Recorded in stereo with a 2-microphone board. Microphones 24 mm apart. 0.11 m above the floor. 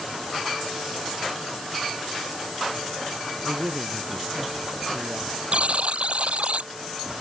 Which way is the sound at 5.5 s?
65° right (ahead or behind).